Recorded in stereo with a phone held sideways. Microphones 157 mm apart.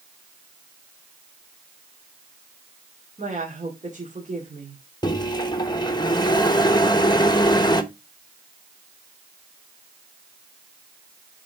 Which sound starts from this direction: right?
A woman speaking, at 3.2 s.